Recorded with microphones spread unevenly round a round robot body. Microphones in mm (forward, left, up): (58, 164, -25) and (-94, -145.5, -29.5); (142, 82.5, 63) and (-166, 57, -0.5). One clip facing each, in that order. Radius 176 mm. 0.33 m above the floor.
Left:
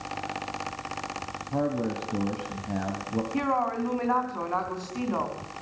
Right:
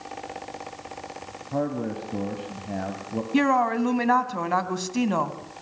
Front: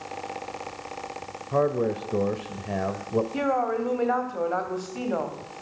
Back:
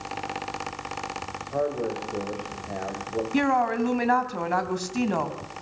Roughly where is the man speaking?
Ahead.